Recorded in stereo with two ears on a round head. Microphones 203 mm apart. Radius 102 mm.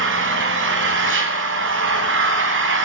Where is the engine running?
55° right (ahead or behind), 3 m.